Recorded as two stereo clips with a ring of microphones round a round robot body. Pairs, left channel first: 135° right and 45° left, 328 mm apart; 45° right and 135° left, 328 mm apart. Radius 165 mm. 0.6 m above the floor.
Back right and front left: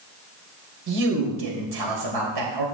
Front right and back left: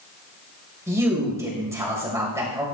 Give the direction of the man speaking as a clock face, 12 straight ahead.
10 o'clock.